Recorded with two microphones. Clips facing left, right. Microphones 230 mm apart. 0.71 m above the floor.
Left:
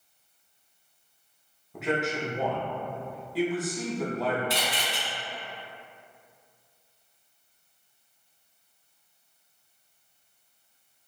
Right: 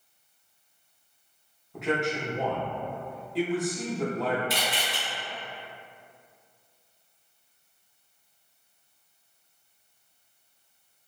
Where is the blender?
No blender in this recording.